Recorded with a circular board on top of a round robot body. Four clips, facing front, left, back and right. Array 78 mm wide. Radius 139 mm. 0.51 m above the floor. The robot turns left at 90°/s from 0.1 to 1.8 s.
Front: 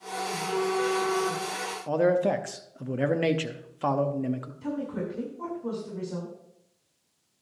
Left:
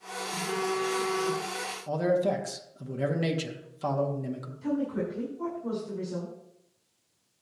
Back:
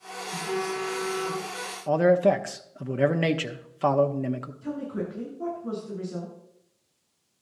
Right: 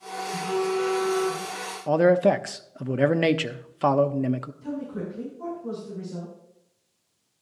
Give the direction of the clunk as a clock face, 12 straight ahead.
I don't hear a clunk.